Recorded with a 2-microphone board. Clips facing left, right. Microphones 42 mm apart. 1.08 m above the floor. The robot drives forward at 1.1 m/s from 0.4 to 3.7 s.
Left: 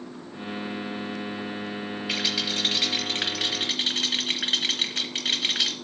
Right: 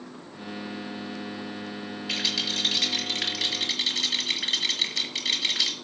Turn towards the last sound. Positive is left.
turn(degrees=30)  # may be behind; listen again after turning